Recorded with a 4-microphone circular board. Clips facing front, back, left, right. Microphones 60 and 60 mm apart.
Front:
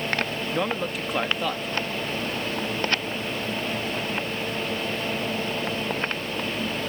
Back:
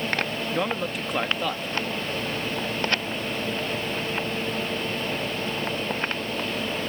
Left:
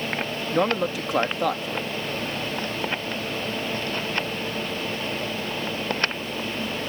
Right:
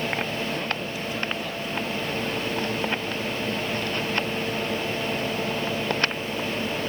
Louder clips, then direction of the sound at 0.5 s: Even, left 7 dB; 90° left.